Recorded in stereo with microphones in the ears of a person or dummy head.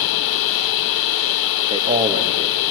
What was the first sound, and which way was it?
A machine running, 60° left (ahead or behind).